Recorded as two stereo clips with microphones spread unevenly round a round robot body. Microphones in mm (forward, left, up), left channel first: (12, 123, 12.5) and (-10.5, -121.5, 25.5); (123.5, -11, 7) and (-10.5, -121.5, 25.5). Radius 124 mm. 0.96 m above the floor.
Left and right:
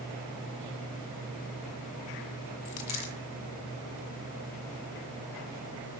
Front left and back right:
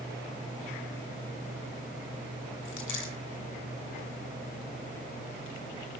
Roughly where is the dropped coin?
Left.